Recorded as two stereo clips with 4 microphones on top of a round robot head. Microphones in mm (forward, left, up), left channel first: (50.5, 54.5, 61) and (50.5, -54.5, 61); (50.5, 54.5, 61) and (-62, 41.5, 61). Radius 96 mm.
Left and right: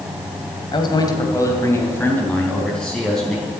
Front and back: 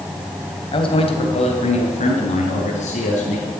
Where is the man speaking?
45° left, 2 m; by 3.5 s straight ahead, 3.5 m.